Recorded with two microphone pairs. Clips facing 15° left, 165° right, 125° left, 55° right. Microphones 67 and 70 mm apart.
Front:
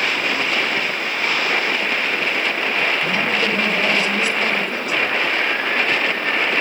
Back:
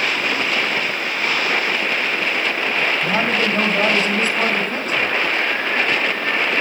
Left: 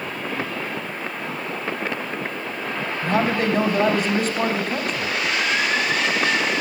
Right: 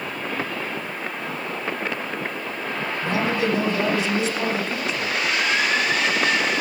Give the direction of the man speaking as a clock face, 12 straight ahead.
7 o'clock.